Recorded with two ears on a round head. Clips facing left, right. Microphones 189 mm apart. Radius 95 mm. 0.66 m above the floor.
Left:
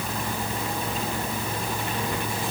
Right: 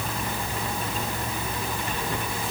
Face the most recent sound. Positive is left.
No sound to turn to.